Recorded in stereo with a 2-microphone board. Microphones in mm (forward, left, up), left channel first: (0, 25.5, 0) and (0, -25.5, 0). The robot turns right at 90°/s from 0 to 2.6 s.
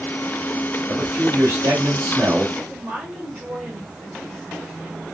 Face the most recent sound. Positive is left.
turn(degrees=-20)  # may be behind; listen again after turning